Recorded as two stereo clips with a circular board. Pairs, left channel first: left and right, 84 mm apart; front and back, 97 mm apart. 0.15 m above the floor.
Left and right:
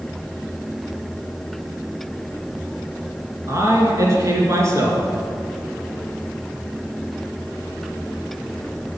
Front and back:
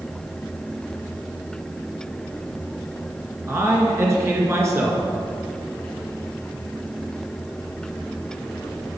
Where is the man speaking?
130° right, 2 m.